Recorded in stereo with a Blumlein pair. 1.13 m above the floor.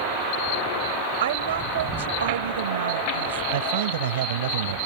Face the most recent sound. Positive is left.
turn(degrees=-60)